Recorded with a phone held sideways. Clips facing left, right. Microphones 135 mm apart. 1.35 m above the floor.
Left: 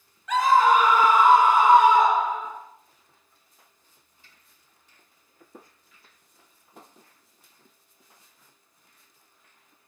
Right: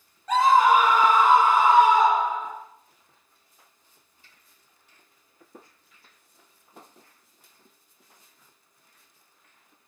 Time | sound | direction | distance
0.3 | a scream | 40° right (ahead or behind) | 0.8 m